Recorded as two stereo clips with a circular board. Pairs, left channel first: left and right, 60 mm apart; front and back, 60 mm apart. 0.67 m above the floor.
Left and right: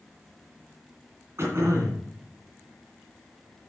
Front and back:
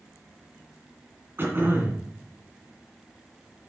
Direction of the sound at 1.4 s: 130° right.